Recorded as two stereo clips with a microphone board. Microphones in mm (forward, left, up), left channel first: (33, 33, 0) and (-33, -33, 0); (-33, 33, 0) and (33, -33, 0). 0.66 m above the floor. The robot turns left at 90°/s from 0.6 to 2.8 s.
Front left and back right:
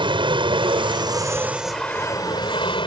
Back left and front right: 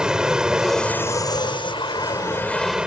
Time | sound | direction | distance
0.0 | an aircraft | 125° right | ?